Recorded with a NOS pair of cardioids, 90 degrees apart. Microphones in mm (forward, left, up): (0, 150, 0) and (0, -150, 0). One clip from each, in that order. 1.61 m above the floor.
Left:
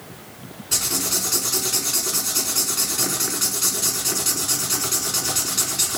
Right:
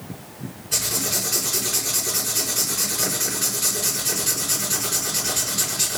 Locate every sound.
0.7 s writing: 55° left, 5 m